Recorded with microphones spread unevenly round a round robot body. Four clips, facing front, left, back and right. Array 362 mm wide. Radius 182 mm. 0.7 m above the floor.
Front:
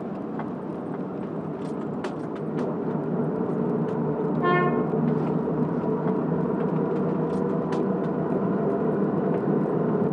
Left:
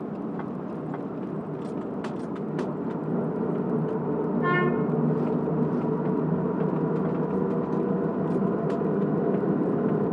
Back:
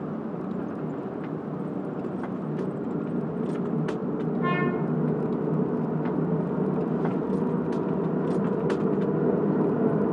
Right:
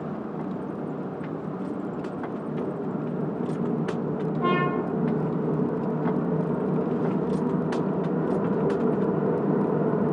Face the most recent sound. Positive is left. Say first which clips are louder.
# right 1 dB, front 5 dB
turn(degrees=-40)